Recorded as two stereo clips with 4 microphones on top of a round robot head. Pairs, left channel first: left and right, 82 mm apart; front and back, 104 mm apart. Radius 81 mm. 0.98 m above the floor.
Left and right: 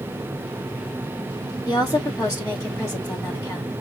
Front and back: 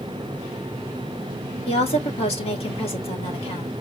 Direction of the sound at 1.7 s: 25° left.